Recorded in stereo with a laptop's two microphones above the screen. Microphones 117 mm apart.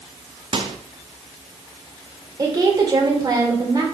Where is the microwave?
45° right (ahead or behind), 1.0 m.